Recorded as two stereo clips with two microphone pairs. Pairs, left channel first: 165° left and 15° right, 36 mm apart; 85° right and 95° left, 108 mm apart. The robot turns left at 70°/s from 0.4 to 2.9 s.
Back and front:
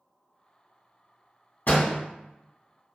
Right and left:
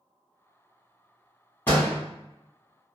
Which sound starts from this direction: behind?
A door slam, at 1.7 s.